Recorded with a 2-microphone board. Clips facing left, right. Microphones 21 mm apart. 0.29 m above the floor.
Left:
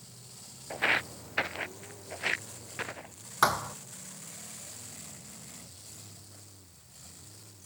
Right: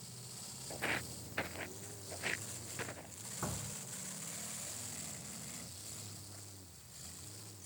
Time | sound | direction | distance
0.7 | footsteps | 40° left (ahead or behind) | ?
3.4 | a thud | 85° left | ?